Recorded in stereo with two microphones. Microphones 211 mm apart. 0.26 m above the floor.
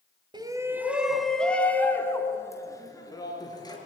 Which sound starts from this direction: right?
A shout, at 0.3 s.